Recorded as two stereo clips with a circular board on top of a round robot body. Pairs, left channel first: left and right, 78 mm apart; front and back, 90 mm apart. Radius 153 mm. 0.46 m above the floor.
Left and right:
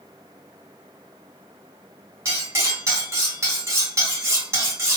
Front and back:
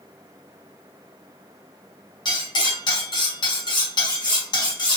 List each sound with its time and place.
2.2 s cutlery clinking: 35° right, 1.7 m